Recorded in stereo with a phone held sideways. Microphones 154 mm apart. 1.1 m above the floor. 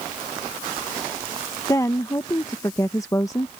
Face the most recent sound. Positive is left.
turn(degrees=20)  # may be behind; listen again after turning